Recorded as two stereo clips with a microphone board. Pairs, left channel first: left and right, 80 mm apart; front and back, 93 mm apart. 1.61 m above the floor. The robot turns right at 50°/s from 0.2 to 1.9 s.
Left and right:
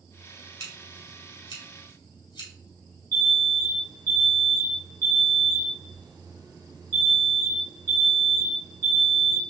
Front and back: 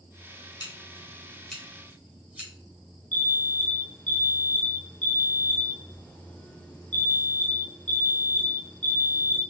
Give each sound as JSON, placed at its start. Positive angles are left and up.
{"t": 0.6, "sound": "scissors", "azimuth_deg": 45, "distance_m": 1.8}
{"t": 3.1, "sound": "an alarm", "azimuth_deg": -70, "distance_m": 0.9}